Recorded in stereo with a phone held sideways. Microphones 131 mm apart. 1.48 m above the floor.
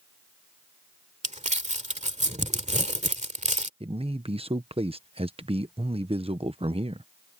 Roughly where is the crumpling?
Right.